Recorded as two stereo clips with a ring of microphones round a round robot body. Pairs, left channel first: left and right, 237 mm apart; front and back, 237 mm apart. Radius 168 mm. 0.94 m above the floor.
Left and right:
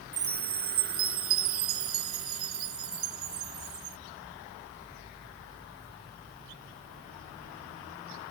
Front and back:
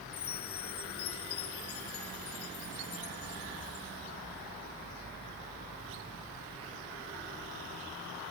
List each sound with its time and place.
0.1 s a chime: 70° right